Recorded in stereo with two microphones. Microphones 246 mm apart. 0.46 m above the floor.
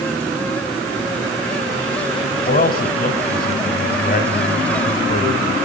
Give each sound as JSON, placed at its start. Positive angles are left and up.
{"t": 2.5, "sound": "a man speaking", "side_deg": 40, "distance_m": 2.5}